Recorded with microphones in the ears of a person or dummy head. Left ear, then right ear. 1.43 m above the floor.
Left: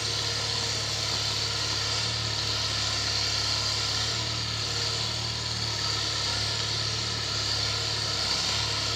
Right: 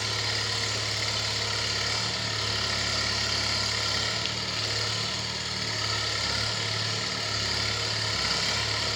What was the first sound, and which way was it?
An engine running, 35° right (ahead or behind).